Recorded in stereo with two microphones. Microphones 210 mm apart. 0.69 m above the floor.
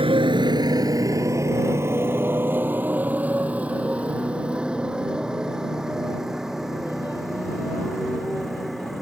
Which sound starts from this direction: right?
A motorcycle, at 0.0 s.